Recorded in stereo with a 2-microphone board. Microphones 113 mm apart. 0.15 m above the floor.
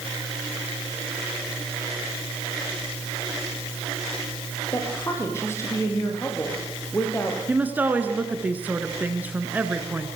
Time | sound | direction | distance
4.7 | a woman speaking | 25° left (ahead or behind) | 4.5 m
7.5 | a woman speaking | 15° right (ahead or behind) | 1.9 m